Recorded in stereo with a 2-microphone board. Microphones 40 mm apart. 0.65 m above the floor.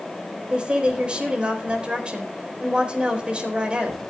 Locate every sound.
0.5 s a woman speaking: 25° right (ahead or behind), 4 m